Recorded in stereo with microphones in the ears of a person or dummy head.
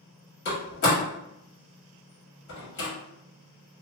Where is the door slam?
60° left (ahead or behind), 1.7 m.